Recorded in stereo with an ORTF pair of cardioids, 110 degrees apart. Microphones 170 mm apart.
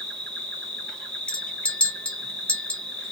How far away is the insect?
About 0.9 m.